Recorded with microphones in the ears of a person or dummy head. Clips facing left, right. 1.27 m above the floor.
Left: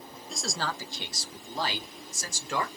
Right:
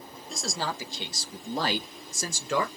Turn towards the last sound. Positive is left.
turn(degrees=-65)  # may be behind; listen again after turning